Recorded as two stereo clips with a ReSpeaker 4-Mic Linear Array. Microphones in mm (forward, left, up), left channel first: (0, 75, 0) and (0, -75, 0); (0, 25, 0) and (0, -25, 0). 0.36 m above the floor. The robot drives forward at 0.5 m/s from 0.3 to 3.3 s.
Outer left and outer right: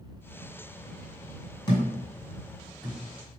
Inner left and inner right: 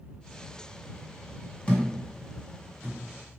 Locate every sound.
1.7 s a thud: 30° left (ahead or behind), 1.6 m; by 3.0 s 20° left (ahead or behind), 2 m